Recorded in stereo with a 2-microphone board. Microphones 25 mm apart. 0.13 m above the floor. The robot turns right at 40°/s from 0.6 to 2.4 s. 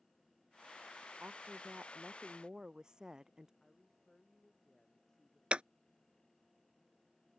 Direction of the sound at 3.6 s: 15° left (ahead or behind).